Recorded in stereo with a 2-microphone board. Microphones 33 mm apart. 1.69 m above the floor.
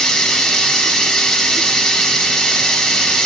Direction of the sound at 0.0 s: 10° left (ahead or behind).